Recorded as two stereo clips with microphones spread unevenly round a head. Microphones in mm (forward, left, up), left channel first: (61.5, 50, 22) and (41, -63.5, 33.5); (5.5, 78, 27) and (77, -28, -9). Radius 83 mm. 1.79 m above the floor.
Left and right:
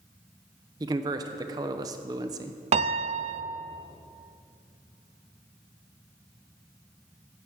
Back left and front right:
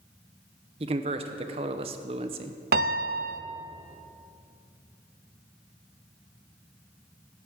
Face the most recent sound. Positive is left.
turn(degrees=-90)